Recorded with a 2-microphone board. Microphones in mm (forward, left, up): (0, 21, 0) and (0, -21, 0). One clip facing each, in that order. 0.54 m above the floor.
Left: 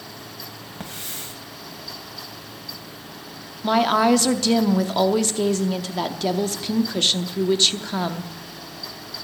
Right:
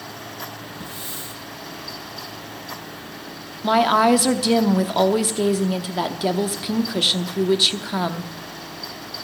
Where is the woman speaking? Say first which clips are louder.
Right 2 dB; 10° right (ahead or behind), 0.7 m.